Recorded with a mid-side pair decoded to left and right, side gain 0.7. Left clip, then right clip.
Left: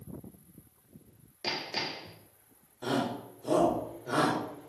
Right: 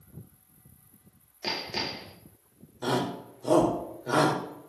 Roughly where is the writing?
I don't hear writing.